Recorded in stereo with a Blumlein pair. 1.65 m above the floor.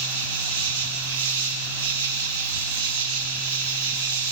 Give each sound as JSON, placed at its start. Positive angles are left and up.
{"t": 0.0, "sound": "an insect", "azimuth_deg": -55, "distance_m": 0.9}